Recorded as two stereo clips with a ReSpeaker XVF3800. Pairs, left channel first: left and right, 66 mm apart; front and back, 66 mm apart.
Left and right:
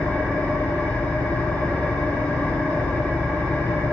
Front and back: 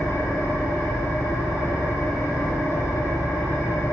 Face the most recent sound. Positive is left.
turn(degrees=30)